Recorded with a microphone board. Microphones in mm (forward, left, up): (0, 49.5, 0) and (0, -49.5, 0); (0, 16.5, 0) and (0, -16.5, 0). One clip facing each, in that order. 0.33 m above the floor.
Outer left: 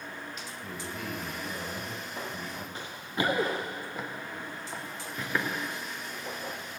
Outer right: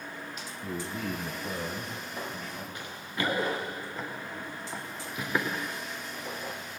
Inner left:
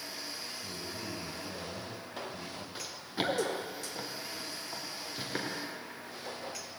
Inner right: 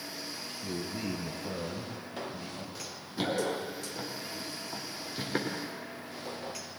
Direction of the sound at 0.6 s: 60° right (ahead or behind).